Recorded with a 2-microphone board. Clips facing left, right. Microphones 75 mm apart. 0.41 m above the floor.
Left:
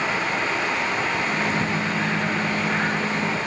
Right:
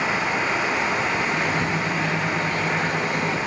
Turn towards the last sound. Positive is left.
turn(degrees=35)  # may be behind; listen again after turning